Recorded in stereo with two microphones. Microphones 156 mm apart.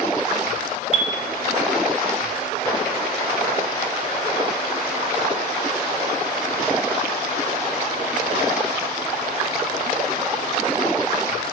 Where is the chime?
55° right (ahead or behind), 5 m.